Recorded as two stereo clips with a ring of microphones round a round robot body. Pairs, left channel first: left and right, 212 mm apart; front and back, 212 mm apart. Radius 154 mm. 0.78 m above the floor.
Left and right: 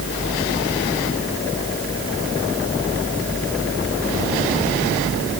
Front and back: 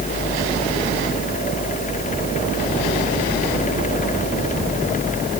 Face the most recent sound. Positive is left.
No sound to turn to.